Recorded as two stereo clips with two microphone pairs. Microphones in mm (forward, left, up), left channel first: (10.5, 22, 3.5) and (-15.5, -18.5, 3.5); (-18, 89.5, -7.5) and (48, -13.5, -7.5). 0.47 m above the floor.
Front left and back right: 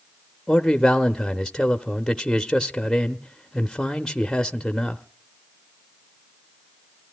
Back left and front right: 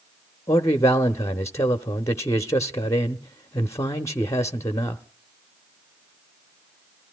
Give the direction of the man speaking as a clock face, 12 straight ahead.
8 o'clock.